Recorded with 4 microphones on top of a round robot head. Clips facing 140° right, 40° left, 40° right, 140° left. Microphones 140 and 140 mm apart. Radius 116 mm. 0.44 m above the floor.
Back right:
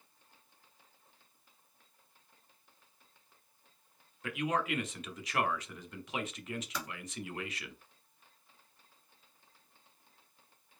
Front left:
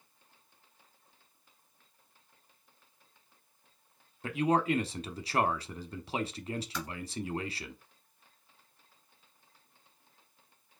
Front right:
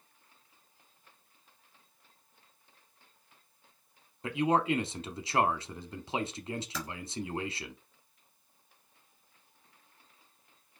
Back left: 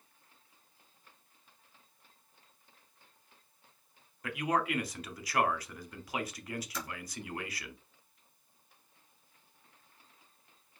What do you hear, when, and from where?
4.2 s a man speaking: 5° left, 0.9 m
6.7 s typing on a keyboard: 55° right, 1.8 m